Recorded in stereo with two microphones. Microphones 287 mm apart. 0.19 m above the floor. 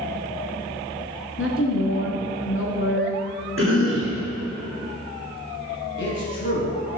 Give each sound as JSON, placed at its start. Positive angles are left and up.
{"t": 1.4, "sound": "a woman speaking", "side_deg": 45, "distance_m": 1.9}
{"t": 3.6, "sound": "a cough", "side_deg": -50, "distance_m": 3.0}
{"t": 6.0, "sound": "a man speaking", "side_deg": 40, "distance_m": 1.9}